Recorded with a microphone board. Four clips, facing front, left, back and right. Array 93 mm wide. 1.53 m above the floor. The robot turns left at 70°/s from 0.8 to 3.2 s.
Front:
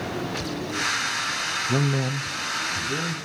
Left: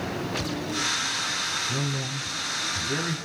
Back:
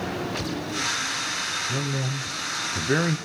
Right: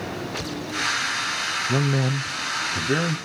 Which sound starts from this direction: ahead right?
A man speaking, at 1.7 s.